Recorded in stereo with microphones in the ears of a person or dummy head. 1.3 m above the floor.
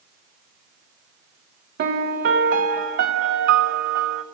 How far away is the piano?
About 0.5 m.